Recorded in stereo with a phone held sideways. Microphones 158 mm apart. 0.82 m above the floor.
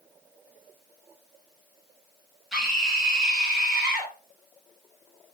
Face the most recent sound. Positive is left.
turn(degrees=-5)  # may be behind; listen again after turning